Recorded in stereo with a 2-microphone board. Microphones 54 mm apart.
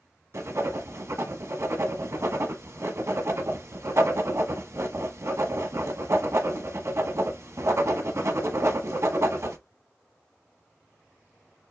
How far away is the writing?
About 1.0 m.